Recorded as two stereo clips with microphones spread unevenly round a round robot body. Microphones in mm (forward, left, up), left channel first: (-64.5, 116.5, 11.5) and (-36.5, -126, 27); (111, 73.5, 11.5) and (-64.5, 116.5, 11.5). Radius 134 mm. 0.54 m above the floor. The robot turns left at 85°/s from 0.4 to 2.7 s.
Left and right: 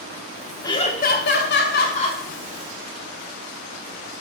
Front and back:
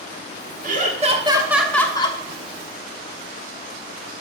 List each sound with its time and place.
0.6 s laughter: 165° left, 1.2 m; by 2.2 s 30° left, 1.2 m